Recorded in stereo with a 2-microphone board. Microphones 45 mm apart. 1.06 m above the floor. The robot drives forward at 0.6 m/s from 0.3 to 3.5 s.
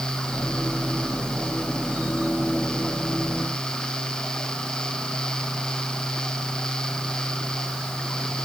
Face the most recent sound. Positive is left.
No sound to turn to.